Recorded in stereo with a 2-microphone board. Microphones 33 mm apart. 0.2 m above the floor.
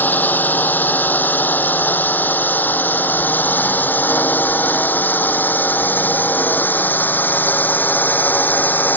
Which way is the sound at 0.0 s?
65° left (ahead or behind).